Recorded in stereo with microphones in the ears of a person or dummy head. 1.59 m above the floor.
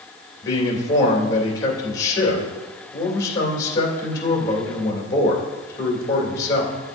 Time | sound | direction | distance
0.4 | a man speaking | 30° left (ahead or behind) | 3 m